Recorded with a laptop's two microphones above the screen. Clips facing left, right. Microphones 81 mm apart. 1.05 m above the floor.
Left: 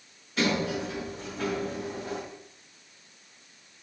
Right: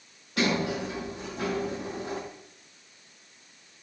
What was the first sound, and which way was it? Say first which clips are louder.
A sliding door: even; 75° right (ahead or behind).